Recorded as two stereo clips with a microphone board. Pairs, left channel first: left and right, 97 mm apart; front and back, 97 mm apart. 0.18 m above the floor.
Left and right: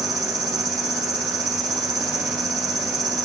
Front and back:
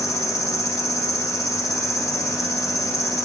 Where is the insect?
45° right, 0.8 m.